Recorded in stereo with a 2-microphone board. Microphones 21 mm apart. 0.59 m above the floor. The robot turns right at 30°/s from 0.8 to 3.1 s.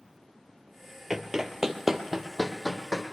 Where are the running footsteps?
20° right (ahead or behind), 0.6 m; by 3.0 s 10° left (ahead or behind), 1.5 m.